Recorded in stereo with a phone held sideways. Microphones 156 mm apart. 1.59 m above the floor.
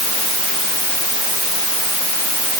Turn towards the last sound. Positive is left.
No sound to turn to.